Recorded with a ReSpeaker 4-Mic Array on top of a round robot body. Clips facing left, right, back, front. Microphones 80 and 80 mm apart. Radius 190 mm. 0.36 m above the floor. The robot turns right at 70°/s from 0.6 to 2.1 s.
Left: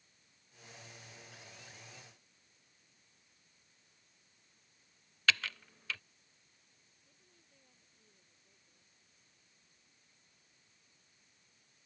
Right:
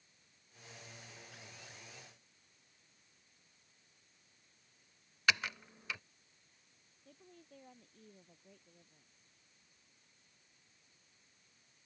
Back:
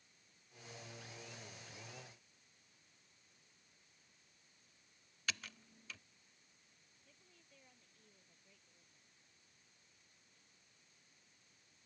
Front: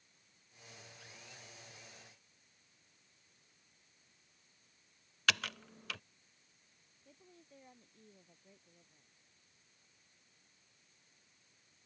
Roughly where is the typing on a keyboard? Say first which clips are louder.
Even, front 11 dB; ahead.